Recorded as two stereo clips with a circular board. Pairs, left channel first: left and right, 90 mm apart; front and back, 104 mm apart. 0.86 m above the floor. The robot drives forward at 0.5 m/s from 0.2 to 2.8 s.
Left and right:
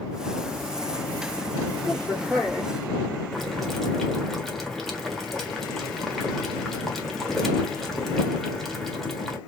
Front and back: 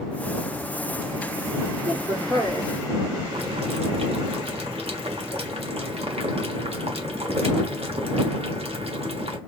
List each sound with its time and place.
1.8 s a woman speaking: 165° left, 2.5 m; by 2.8 s 170° left, 3 m
3.3 s boiling: straight behind, 1.5 m